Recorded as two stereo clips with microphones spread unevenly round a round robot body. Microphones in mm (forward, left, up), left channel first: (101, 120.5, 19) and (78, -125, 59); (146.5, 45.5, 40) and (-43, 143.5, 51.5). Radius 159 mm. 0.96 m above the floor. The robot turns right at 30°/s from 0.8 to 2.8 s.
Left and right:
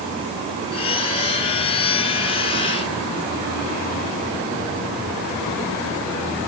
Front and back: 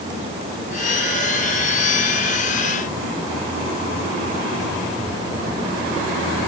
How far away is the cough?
I don't hear a cough.